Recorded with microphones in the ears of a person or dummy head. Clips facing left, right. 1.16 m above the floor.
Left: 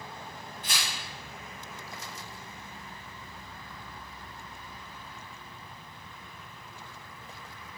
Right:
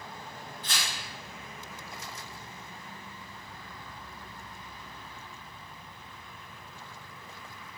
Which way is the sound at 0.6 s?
25° left (ahead or behind).